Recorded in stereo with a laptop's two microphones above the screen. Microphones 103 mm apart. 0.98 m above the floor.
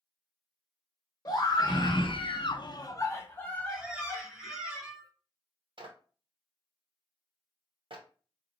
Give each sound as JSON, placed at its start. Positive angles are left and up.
{"t": 1.2, "sound": "a scream", "side_deg": 40, "distance_m": 0.9}
{"t": 3.7, "sound": "a squeak", "side_deg": -5, "distance_m": 1.3}
{"t": 5.8, "sound": "a clap", "side_deg": -60, "distance_m": 0.8}